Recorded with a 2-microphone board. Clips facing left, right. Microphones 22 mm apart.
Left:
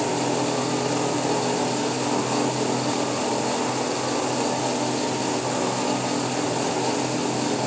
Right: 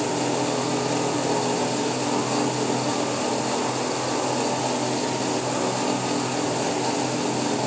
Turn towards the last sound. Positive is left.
No sound to turn to.